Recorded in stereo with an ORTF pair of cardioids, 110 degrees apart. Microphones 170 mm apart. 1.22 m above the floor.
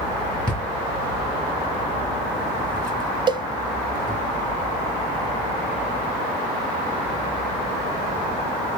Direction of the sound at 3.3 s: 25° right.